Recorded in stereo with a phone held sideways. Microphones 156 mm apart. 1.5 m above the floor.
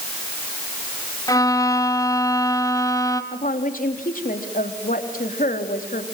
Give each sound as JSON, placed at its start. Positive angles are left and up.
{"t": 1.3, "sound": "a violin", "side_deg": 20, "distance_m": 1.7}
{"t": 3.3, "sound": "a woman speaking", "side_deg": 60, "distance_m": 3.5}